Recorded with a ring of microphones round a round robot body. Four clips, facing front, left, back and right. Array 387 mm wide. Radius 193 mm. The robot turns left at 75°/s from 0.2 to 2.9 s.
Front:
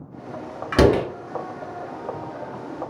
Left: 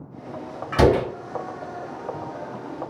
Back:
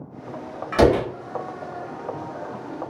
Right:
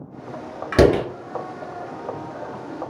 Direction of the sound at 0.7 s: 50° right.